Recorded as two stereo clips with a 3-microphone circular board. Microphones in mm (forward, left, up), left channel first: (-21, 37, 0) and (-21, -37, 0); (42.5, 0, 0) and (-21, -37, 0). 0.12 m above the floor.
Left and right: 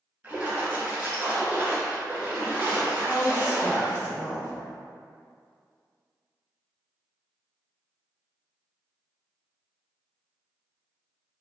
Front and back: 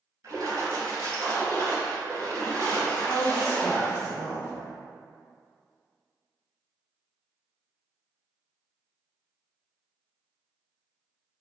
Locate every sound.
0.2 s a splash: 145° right, 1.1 m
3.0 s a woman speaking: 115° right, 1.7 m